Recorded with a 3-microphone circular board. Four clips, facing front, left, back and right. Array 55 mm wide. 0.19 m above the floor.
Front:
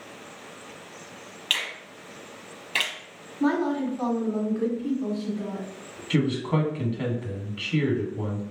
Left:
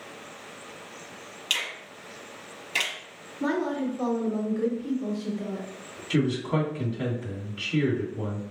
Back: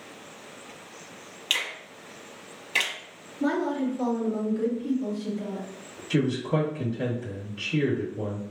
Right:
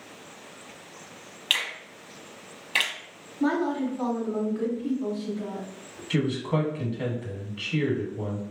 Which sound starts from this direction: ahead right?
A woman speaking, at 3.4 s.